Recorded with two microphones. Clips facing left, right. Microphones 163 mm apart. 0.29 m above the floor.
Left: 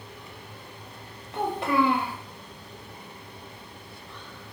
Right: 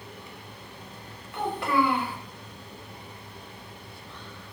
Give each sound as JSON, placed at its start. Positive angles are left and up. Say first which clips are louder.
{"t": 1.3, "sound": "a child speaking", "louder": "left 1 dB", "side_deg": 25, "distance_m": 1.0}